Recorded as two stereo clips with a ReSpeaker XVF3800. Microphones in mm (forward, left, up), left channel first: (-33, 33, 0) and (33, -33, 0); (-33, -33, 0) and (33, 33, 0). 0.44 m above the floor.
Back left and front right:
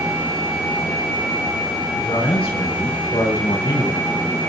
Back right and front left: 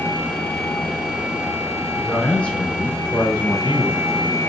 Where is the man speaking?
145° left, 5 m; by 4.4 s 165° left, 3.5 m.